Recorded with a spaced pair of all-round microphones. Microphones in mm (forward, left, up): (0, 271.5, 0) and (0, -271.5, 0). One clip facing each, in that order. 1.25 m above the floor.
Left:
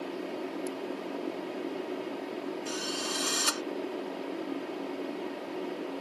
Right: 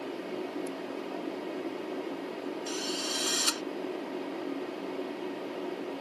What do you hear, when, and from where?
2.7 s a drill: 75° left (ahead or behind)